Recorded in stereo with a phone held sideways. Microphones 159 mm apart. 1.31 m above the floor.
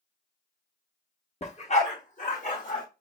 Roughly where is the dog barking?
Left.